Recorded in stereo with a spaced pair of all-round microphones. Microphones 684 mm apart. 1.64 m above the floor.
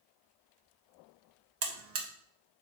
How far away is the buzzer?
About 0.7 m.